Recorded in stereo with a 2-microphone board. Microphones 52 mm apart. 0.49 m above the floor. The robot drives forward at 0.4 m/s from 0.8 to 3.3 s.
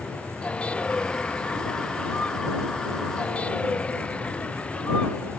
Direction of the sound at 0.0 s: 20° left (ahead or behind).